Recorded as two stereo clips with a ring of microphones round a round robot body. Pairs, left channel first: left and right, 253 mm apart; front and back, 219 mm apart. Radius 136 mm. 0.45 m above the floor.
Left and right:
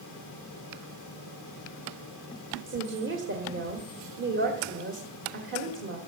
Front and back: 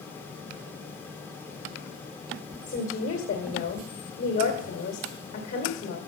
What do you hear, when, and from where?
2.7 s a woman speaking: 50° right, 1.8 m